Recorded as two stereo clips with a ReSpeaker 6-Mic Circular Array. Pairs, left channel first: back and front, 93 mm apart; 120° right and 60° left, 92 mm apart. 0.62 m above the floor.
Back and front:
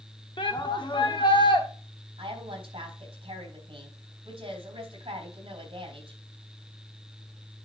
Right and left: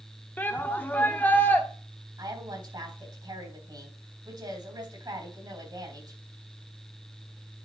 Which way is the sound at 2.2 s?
20° left.